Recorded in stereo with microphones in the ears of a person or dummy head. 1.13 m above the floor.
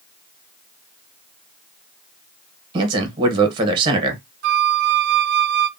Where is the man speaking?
25° right (ahead or behind), 1.2 m.